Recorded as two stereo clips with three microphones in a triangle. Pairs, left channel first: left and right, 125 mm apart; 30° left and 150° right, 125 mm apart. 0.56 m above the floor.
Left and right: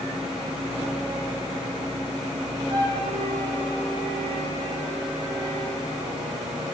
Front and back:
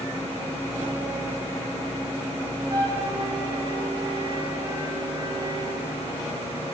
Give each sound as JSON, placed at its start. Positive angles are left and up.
{"t": 2.7, "sound": "a flute", "azimuth_deg": -110, "distance_m": 7.5}